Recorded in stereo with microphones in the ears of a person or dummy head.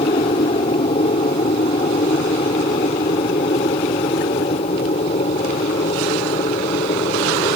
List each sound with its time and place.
0.0 s an aircraft: 35° left (ahead or behind); by 7.5 s 40° left (ahead or behind)